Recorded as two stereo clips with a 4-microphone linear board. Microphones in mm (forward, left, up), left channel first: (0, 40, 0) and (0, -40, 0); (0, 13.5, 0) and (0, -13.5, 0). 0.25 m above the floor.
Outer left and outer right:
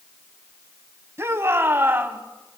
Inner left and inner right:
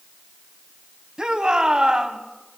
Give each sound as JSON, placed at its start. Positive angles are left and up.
{"t": 1.2, "sound": "a shout", "side_deg": -35, "distance_m": 2.0}